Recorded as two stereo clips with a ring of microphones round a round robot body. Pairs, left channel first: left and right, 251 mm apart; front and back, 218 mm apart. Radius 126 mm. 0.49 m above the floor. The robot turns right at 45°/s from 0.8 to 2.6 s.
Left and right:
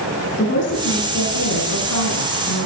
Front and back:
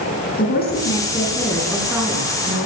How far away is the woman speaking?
About 5.5 m.